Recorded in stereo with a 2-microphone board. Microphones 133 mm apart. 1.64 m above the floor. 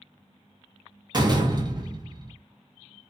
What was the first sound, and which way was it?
A door slam, 35° right (ahead or behind).